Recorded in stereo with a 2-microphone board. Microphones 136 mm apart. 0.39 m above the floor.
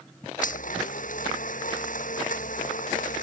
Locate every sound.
0.4 s a blender: 70° left (ahead or behind)